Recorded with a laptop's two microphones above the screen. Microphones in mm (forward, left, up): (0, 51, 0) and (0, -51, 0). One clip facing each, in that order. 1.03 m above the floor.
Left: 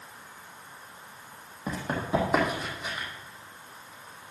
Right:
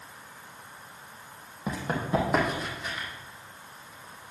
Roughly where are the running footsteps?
Centre.